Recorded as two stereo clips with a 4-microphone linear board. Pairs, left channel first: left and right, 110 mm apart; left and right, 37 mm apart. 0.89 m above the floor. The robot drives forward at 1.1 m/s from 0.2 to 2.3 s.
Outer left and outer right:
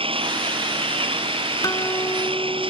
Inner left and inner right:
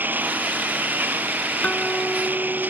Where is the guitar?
35° left (ahead or behind); by 2.7 s 30° left (ahead or behind).